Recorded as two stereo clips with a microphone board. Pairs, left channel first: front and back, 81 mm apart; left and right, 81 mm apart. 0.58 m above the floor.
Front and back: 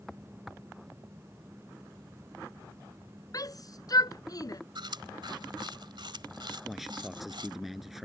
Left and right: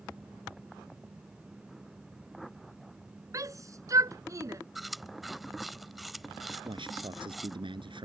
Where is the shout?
40° right.